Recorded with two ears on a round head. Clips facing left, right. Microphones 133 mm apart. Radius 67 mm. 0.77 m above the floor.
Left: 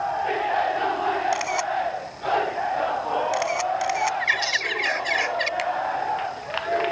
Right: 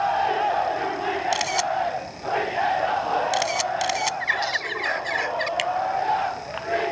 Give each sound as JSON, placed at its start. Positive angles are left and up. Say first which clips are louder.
{"t": 1.3, "sound": "a camera shutter", "louder": "even", "side_deg": -35}
{"t": 4.2, "sound": "a bird", "louder": "right 1 dB", "side_deg": 25}
{"t": 5.6, "sound": "a finger snap", "louder": "left 1 dB", "side_deg": -30}